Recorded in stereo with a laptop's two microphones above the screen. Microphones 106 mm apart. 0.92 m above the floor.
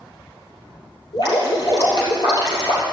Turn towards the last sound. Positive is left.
turn(degrees=45)  # may be behind; listen again after turning